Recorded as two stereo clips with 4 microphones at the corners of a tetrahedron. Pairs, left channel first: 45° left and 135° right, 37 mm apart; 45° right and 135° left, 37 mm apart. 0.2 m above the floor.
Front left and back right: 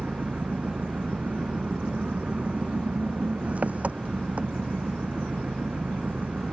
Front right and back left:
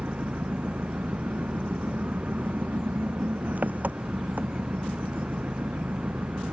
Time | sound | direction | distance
0.0 | an engine running | 175° left | ?